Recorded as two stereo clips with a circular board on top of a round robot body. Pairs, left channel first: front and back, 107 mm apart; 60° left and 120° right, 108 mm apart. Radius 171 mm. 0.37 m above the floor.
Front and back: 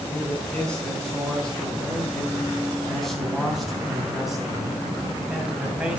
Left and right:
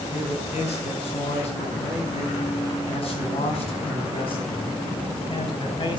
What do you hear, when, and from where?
0.1 s a man speaking: 80° left, 6.5 m; by 6.0 s 100° left, 4 m